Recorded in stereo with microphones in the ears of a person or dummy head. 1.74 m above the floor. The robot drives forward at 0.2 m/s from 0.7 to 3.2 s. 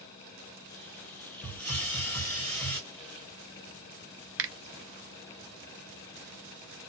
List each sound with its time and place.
1.4 s a hiss: 10° left (ahead or behind), 1.2 m
4.4 s a finger snap: 65° right (ahead or behind), 0.6 m